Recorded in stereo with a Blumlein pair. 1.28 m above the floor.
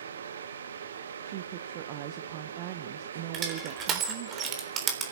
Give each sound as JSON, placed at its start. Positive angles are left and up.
{"t": 0.0, "sound": "a fan", "azimuth_deg": -65, "distance_m": 1.0}
{"t": 1.2, "sound": "a woman speaking", "azimuth_deg": -45, "distance_m": 0.9}
{"t": 3.3, "sound": "crushing", "azimuth_deg": -30, "distance_m": 3.5}